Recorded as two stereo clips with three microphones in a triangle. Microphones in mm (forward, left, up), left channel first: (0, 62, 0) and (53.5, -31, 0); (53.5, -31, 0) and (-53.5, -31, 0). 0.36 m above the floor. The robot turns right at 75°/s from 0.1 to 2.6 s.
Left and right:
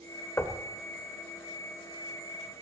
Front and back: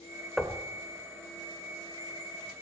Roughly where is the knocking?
Left.